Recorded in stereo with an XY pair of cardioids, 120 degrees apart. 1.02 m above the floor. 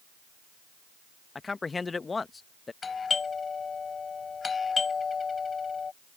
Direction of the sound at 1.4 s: 25° left.